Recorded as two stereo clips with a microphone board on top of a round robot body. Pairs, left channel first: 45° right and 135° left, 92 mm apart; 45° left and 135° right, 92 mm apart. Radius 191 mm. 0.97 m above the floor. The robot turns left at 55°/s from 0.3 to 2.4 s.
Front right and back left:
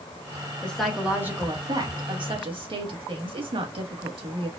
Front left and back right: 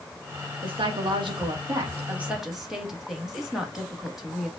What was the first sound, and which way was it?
A woman speaking, 120° right.